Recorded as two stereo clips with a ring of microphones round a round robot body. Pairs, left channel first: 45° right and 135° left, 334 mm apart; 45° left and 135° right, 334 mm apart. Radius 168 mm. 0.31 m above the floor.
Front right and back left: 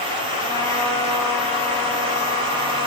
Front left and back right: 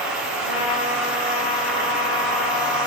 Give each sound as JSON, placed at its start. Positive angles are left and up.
{"t": 0.4, "sound": "a trumpet", "azimuth_deg": 35, "distance_m": 7.5}